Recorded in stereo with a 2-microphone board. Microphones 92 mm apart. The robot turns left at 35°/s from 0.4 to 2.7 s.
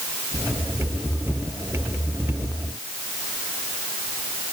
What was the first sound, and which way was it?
Only background noise.